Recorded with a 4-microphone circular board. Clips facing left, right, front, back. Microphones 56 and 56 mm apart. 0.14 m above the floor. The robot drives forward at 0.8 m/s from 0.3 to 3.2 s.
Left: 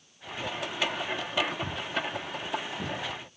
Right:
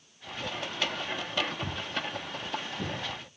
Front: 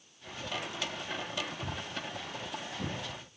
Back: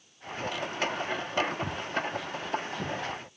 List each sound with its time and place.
1.6 s footsteps: 175° left, 0.7 m; by 2.9 s straight behind, 3.5 m